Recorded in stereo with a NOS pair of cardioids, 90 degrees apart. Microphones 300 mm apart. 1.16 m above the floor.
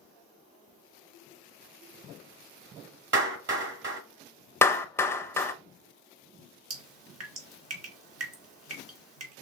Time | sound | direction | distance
3.1 | a clap | 40° right | 2.5 m
4.6 | a clap | 10° left | 0.6 m
6.7 | dripping | 55° right | 2 m